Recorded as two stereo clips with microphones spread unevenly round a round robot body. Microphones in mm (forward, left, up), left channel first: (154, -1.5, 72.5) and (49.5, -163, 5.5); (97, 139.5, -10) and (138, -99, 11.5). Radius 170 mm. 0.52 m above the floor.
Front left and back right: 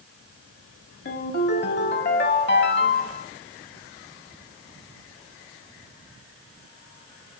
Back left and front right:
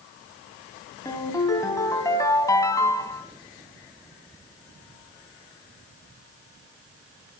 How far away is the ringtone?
About 2.5 m.